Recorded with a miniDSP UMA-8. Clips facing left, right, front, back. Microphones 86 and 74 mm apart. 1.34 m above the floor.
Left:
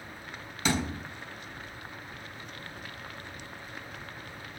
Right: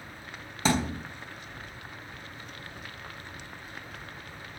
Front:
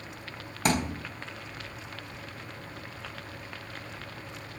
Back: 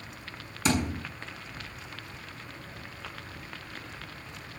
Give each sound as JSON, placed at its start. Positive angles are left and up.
{"t": 0.7, "sound": "a thud", "azimuth_deg": -35, "distance_m": 4.5}